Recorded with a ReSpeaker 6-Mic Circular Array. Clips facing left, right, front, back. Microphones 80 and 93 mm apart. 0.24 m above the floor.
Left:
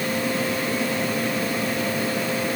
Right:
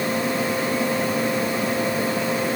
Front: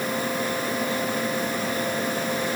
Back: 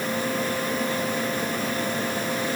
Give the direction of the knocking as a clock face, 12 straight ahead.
I don't hear knocking.